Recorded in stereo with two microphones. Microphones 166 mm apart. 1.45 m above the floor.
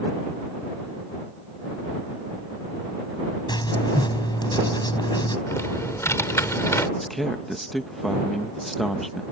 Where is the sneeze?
No sneeze in this recording.